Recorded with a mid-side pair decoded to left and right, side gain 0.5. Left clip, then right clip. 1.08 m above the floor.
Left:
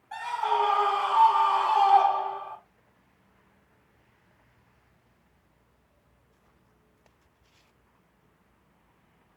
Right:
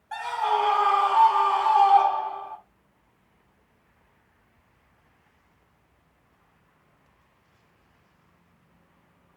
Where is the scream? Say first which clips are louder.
Right 2 dB; 30° right, 1.6 m; by 2.6 s 20° left, 1.6 m.